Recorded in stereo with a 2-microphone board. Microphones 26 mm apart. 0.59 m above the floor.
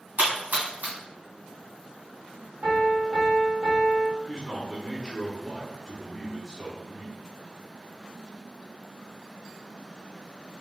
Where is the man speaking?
Centre (ahead or behind), 1.3 m.